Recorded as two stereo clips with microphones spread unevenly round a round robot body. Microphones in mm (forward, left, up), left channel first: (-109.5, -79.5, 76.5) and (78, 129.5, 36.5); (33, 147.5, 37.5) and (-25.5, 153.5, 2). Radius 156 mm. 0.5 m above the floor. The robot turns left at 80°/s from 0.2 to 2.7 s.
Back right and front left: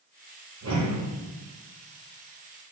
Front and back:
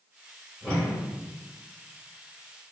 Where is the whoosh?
90° left, 3 m; by 1.1 s 55° left, 3 m.